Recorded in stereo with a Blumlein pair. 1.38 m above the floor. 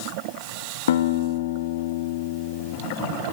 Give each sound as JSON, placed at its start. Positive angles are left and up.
{"t": 0.9, "sound": "a guitar", "azimuth_deg": 60, "distance_m": 2.5}